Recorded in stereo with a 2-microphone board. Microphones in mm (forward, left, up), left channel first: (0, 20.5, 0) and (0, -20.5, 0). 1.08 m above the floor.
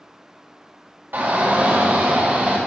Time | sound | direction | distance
1.1 | a shout | 60° right (ahead or behind) | 4 m